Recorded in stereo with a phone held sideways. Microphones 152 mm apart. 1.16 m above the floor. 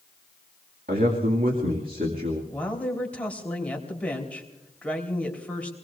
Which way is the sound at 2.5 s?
10° left (ahead or behind).